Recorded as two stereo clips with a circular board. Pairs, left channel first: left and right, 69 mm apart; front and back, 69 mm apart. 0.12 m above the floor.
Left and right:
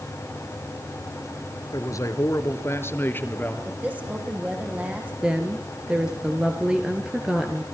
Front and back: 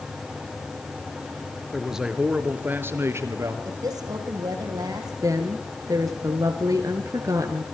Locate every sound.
1.7 s a man speaking: 90° left, 2.5 m; by 3.5 s 150° left, 3 m
3.6 s a woman speaking: 160° right, 6 m
5.2 s a woman speaking: 165° right, 2 m